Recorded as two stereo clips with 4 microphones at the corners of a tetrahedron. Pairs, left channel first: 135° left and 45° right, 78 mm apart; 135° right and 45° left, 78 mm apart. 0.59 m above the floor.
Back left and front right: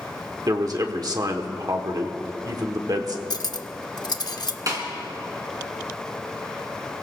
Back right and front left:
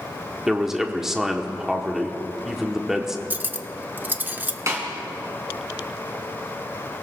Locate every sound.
0.5 s a man speaking: 40° right, 1.4 m
3.3 s cutlery clinking: 110° left, 0.7 m
4.7 s a snare drum: 5° right, 3.5 m